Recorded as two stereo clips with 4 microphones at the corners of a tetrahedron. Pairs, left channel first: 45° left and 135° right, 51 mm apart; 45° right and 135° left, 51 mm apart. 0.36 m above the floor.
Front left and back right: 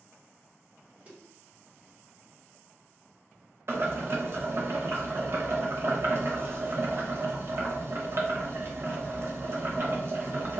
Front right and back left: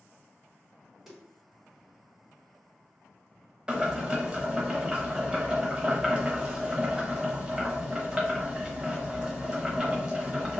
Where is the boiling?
155° right, 0.8 m.